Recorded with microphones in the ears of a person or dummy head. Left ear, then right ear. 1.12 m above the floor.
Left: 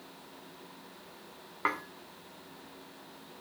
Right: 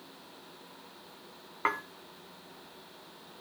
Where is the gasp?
No gasp in this recording.